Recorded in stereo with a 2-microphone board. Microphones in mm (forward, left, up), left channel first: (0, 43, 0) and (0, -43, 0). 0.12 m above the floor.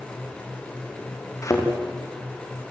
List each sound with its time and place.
1.4 s a thud: 40° left (ahead or behind), 5 m